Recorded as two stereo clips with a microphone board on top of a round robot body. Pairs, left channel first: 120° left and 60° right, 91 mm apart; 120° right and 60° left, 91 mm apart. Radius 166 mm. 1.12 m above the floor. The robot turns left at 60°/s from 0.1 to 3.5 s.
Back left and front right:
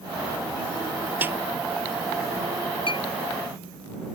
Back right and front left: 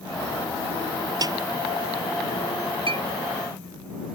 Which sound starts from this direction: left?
A clink, at 2.9 s.